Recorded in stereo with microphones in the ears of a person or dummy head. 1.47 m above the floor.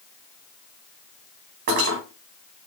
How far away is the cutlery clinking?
About 0.8 m.